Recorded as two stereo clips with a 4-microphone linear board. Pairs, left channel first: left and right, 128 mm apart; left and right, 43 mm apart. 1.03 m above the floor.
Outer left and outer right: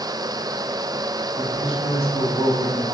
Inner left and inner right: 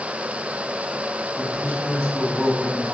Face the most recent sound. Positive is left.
turn(degrees=55)  # may be behind; listen again after turning